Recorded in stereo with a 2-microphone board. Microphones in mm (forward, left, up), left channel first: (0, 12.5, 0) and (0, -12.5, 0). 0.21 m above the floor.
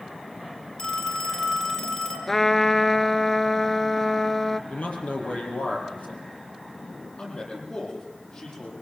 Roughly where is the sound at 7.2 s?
Left.